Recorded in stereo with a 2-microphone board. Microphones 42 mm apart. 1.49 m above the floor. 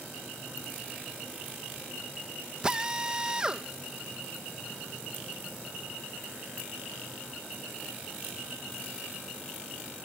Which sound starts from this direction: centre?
A drill, at 2.6 s.